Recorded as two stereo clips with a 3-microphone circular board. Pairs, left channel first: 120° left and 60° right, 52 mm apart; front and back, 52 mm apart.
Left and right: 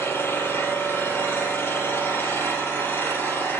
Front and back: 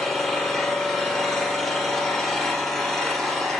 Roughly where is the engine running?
Left.